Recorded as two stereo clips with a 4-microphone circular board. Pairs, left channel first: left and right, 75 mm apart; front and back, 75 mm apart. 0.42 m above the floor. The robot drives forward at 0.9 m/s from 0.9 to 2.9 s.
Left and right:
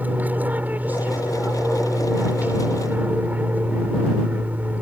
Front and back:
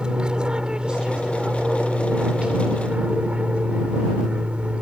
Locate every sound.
0.0 s an aircraft: 120° right; by 4.8 s 125° right